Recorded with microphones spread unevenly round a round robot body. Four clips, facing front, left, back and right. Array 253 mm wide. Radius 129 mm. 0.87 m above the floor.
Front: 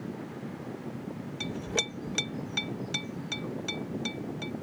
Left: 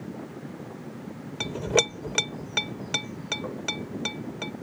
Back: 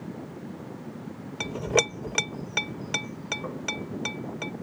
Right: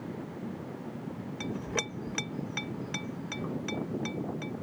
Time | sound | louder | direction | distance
1.4 | a clink | left 10 dB, back 10 dB | 125° left | ?